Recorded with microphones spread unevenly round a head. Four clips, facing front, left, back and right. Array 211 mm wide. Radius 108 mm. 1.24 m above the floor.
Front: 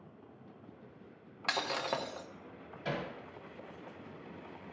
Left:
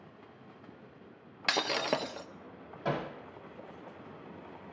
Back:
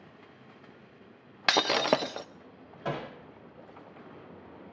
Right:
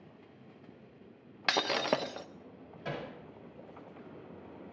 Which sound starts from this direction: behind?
Breaking glass, at 1.5 s.